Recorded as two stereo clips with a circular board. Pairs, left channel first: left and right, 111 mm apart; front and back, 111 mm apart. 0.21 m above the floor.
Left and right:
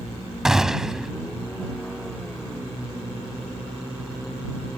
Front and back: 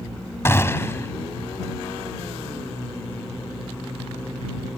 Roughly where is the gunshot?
Ahead.